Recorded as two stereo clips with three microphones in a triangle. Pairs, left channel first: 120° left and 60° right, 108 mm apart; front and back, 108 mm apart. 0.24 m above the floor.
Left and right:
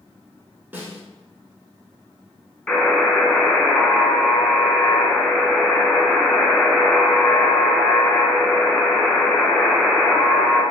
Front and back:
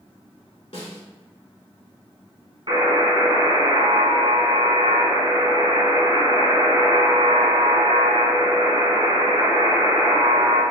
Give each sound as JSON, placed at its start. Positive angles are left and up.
{"t": 0.7, "sound": "a snare drum", "azimuth_deg": 15, "distance_m": 1.2}
{"t": 2.7, "sound": "a buzzer", "azimuth_deg": -170, "distance_m": 1.7}